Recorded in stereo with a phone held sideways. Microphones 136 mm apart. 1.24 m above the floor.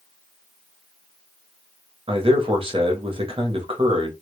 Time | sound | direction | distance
2.1 | a man speaking | 40° right (ahead or behind) | 0.7 m